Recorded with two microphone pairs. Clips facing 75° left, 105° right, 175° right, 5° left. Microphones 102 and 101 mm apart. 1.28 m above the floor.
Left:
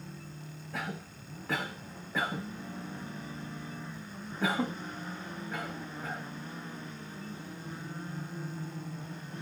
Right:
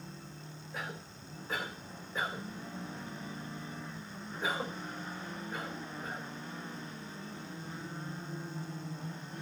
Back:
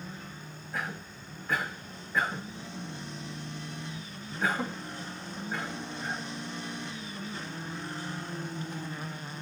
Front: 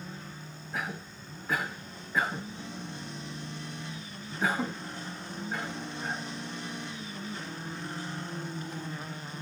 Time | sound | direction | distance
0.7 | a cough | 90° left | 1.6 m